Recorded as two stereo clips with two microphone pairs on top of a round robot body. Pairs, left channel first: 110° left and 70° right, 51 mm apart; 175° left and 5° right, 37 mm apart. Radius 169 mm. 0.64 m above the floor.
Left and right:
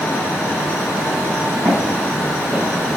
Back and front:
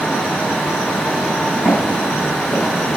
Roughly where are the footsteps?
Behind right.